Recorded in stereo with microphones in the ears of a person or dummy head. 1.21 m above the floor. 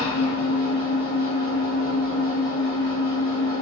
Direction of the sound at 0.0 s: 50° right (ahead or behind).